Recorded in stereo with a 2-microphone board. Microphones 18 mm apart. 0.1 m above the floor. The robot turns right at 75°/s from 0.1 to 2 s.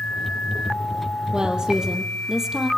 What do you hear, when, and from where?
1.3 s a woman speaking: 85° right, 2.5 m; by 2.7 s 35° right, 2.5 m